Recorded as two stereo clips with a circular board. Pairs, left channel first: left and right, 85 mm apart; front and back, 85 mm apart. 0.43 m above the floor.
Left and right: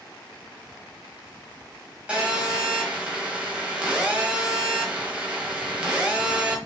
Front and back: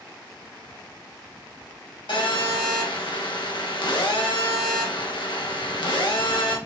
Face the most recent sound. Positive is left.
turn(degrees=-15)